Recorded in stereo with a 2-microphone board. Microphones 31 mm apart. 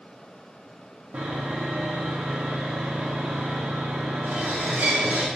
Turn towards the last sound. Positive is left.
turn(degrees=-85)